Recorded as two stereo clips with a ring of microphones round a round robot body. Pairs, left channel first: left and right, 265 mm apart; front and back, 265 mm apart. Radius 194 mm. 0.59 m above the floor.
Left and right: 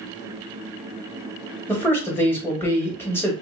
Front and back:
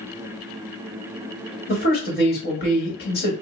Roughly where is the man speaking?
Ahead.